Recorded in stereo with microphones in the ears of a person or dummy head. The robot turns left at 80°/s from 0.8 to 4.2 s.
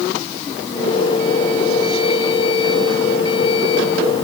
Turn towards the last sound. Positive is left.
No sound to turn to.